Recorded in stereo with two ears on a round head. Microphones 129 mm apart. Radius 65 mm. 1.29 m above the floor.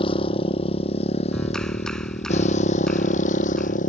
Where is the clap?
5° left (ahead or behind).